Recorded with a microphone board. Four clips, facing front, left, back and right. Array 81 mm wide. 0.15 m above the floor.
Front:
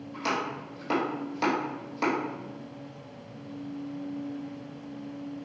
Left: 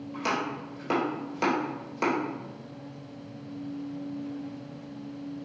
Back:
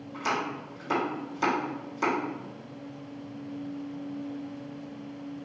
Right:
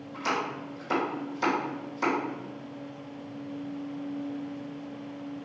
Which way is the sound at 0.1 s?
65° left.